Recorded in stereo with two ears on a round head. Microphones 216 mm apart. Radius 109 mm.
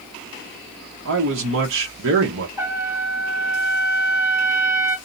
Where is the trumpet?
10° right (ahead or behind), 1.2 m.